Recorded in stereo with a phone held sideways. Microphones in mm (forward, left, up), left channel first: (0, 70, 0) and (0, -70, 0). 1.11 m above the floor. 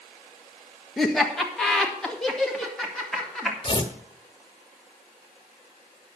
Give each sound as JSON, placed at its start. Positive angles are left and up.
{"t": 1.0, "sound": "laughter", "side_deg": 5, "distance_m": 1.6}
{"t": 3.6, "sound": "tearing paper", "side_deg": 35, "distance_m": 1.2}